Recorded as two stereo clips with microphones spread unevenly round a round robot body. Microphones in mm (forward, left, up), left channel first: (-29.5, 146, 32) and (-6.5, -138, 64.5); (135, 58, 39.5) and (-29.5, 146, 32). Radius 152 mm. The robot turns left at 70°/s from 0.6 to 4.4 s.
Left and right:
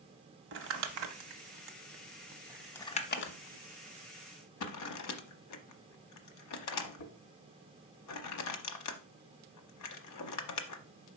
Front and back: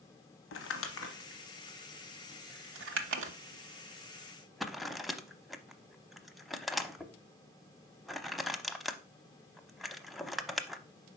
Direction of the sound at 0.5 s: 30° right.